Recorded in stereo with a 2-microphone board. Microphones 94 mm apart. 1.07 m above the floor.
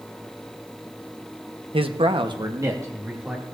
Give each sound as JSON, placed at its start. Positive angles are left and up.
{"t": 1.7, "sound": "a man speaking", "side_deg": -75, "distance_m": 1.0}